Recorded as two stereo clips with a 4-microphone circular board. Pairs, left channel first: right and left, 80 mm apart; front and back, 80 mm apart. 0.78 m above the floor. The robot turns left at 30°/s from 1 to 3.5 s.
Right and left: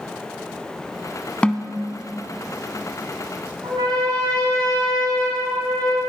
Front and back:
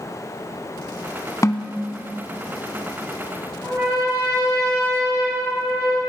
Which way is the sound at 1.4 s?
20° right.